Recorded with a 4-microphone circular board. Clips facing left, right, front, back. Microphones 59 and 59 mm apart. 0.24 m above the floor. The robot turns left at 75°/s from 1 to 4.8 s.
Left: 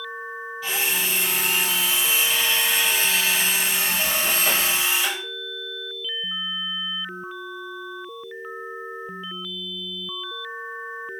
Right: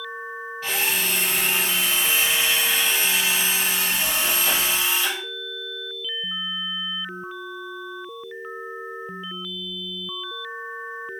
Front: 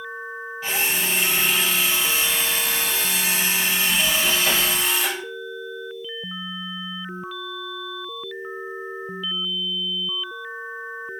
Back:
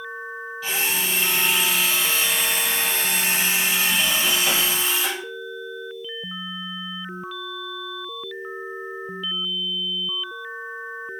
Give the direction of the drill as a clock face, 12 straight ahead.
2 o'clock.